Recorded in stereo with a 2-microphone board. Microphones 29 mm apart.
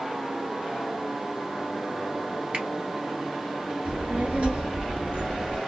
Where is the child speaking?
45° right (ahead or behind), 1.1 m.